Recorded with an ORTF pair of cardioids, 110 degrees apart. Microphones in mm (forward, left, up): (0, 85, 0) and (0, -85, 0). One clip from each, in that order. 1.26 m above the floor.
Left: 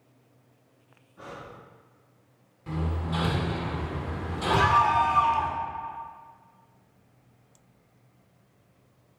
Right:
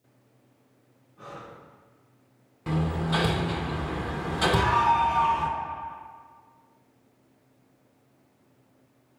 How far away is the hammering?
About 1.0 m.